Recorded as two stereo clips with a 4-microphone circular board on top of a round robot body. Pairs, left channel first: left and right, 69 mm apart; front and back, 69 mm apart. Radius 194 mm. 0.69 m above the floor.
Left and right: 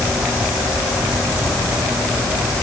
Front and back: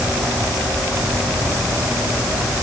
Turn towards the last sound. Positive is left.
No sound to turn to.